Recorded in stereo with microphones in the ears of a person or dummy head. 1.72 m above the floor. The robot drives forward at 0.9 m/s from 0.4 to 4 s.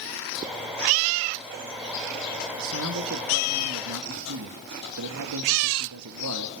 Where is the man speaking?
70° right (ahead or behind), 2.5 m; by 6.5 s 75° right (ahead or behind), 2.5 m.